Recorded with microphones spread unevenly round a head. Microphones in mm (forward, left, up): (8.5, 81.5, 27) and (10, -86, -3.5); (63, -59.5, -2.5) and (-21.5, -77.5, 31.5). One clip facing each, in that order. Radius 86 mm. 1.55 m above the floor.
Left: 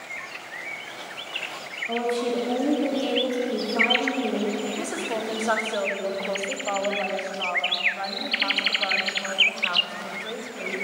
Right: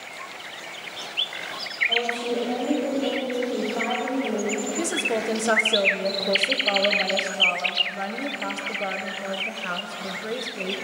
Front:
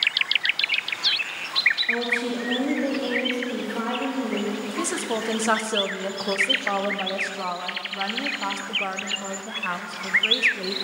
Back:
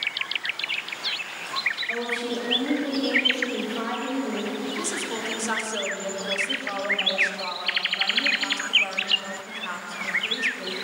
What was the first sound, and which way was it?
A woman speaking, 55° left.